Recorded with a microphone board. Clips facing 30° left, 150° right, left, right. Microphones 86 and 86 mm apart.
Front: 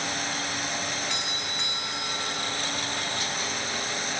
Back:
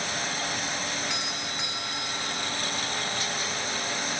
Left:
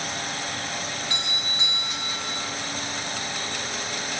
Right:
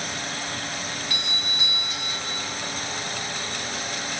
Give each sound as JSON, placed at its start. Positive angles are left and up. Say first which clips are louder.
{"t": 1.1, "sound": "a doorbell", "louder": "even, even", "azimuth_deg": 125, "distance_m": 2.0}